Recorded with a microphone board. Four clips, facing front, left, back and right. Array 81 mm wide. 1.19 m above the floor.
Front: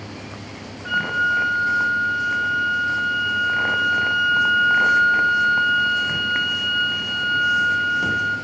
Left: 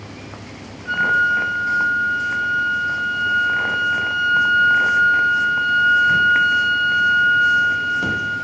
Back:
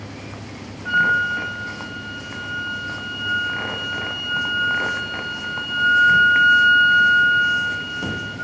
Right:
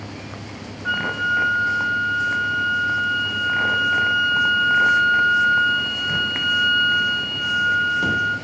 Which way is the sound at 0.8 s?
65° right.